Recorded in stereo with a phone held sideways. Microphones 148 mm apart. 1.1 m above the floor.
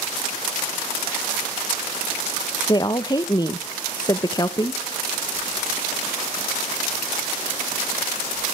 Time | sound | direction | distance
2.7 | a woman speaking | 25° left (ahead or behind) | 0.7 m